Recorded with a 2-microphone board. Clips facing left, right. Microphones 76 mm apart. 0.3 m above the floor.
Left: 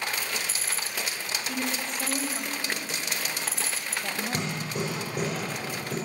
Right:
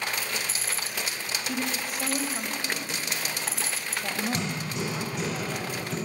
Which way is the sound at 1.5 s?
5° right (ahead or behind).